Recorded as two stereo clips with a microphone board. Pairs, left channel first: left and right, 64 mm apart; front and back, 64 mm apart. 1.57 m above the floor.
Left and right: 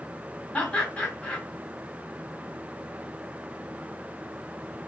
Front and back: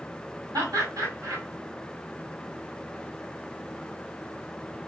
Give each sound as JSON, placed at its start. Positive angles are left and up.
{"t": 0.5, "sound": "laughter", "azimuth_deg": 165, "distance_m": 1.4}